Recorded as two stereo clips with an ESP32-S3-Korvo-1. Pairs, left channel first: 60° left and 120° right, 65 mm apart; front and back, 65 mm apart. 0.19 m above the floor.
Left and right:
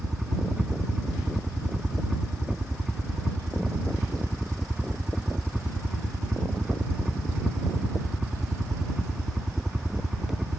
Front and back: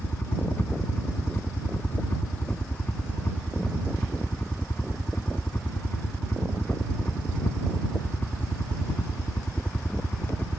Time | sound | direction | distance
0.0 | a helicopter | 40° right | ?